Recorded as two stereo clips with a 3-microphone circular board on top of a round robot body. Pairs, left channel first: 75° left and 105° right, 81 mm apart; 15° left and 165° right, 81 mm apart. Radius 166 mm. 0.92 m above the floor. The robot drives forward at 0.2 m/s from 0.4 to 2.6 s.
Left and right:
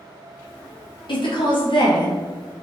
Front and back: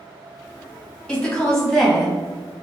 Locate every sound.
1.1 s a woman speaking: 95° left, 1.2 m; by 2.6 s 105° left, 1.3 m